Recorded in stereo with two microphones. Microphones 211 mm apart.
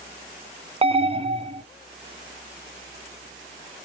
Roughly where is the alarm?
Right.